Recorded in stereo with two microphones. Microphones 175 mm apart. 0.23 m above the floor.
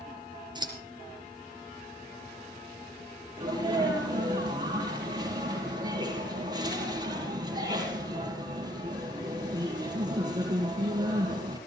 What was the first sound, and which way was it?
Scissors, 25° right (ahead or behind).